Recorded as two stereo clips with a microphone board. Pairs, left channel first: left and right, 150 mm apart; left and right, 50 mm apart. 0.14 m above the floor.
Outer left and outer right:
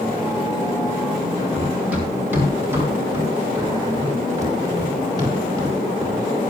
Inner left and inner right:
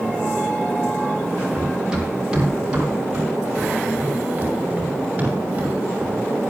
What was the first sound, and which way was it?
Running footsteps, 10° right (ahead or behind).